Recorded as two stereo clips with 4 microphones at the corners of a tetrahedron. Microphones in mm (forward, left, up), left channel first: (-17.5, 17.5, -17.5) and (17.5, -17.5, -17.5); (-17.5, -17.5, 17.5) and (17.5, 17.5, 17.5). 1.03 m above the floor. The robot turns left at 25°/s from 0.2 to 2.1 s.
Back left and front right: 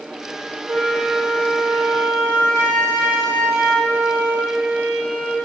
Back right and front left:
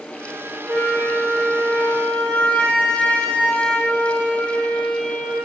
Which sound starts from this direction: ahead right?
A flute, at 0.7 s.